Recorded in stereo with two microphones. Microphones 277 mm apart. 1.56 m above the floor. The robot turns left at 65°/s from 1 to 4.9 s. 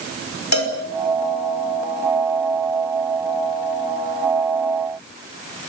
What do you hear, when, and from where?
0.5 s a cowbell: 80° left, 5 m